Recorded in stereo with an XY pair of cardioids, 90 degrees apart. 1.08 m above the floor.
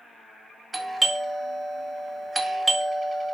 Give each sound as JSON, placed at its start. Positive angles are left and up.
{"t": 0.7, "sound": "a doorbell", "azimuth_deg": -30, "distance_m": 1.9}